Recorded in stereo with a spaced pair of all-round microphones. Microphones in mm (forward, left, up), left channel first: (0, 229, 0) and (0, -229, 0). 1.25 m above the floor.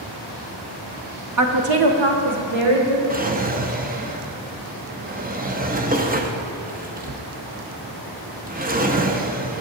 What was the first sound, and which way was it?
A woman speaking, 35° right (ahead or behind).